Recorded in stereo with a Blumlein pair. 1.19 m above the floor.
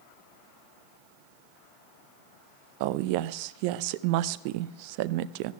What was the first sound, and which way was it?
A woman speaking, 45° right.